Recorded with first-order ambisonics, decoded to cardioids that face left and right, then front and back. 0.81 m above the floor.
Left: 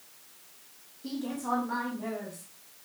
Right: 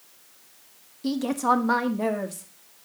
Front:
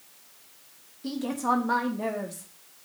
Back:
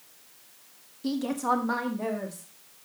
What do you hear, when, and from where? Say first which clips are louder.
1.0 s a woman speaking: right 10 dB, even; 110° right, 1.0 m; by 2.5 s 85° right, 2.0 m